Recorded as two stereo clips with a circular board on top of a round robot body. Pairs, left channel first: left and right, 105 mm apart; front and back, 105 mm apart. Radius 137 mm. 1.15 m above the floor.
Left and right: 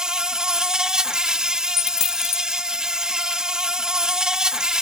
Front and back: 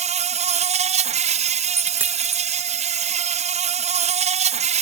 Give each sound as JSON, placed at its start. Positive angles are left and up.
{"t": 0.0, "sound": "an insect", "azimuth_deg": -175}
{"t": 1.8, "sound": "a dropped coin", "azimuth_deg": 110}